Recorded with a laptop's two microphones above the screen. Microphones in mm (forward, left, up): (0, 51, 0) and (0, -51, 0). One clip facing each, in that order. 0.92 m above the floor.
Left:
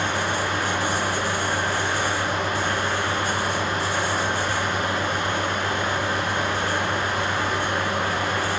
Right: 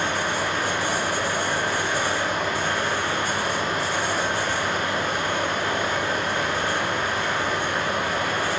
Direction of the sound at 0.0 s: 45° left (ahead or behind).